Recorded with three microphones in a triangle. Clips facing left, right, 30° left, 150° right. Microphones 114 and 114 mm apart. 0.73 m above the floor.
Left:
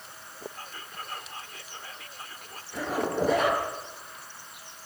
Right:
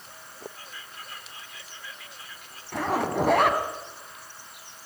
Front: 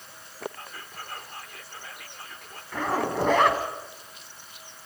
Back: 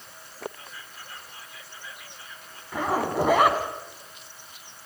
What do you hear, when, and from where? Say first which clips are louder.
0.6 s whispering: left 3 dB, front 3 dB; 50° left, 2.5 m
2.7 s a zipper: right 3 dB, back 2 dB; 70° right, 4 m